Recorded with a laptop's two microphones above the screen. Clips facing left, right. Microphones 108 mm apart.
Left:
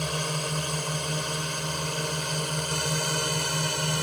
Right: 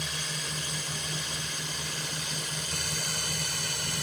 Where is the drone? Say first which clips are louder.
Left 8 dB; 50° left (ahead or behind); by 4.0 s 55° left (ahead or behind).